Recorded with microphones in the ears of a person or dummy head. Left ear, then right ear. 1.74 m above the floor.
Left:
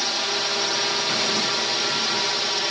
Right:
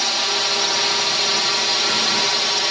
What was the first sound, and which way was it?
A drone, 20° right (ahead or behind).